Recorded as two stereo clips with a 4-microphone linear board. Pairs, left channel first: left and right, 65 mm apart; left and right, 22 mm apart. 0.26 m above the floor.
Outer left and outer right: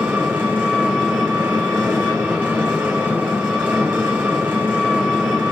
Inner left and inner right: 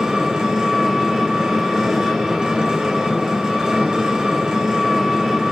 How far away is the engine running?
About 2.5 m.